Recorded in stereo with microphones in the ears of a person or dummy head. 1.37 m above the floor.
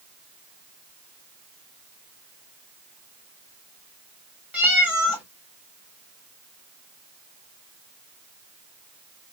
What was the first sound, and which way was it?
A cat meowing, 10° right (ahead or behind).